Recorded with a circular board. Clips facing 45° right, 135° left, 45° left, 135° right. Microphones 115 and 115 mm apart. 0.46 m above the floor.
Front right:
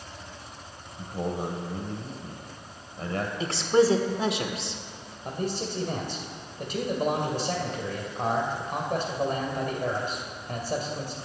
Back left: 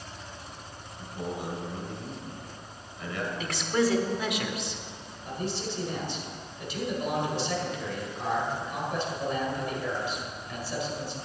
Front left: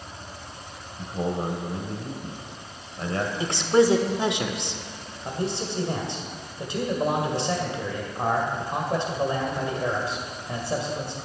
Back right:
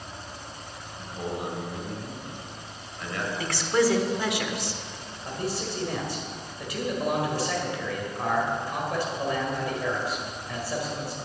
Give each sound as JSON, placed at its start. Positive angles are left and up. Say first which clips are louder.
{"t": 1.0, "sound": "a man speaking", "louder": "front right 4 dB, front left 5 dB", "azimuth_deg": -5, "distance_m": 2.0}
{"t": 3.4, "sound": "a woman speaking", "louder": "front right 6 dB, front left 4 dB", "azimuth_deg": -10, "distance_m": 1.1}
{"t": 5.2, "sound": "a man speaking", "louder": "front right 2 dB, front left 2 dB", "azimuth_deg": -15, "distance_m": 2.0}